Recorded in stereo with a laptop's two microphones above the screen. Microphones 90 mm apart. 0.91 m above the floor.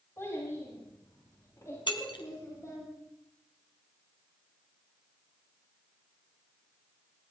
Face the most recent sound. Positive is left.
turn(degrees=65)  # may be behind; listen again after turning